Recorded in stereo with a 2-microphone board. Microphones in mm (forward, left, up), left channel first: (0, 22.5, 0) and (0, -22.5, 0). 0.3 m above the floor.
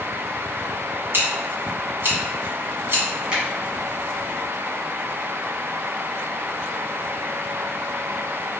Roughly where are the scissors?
Right.